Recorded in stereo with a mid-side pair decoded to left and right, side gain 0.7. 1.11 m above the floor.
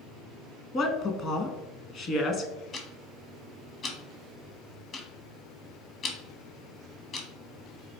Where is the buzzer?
No buzzer in this recording.